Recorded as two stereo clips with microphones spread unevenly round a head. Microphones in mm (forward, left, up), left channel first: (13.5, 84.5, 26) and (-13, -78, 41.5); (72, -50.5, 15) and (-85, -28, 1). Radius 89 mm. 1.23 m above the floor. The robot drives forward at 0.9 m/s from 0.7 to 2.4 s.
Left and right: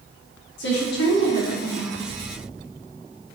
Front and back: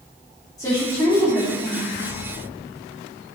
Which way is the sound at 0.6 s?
65° left.